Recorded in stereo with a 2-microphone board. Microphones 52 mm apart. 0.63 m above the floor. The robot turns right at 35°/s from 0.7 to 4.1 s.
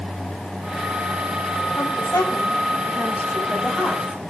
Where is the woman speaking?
90° left, 4.5 m; by 4.3 s 170° left, 4.5 m.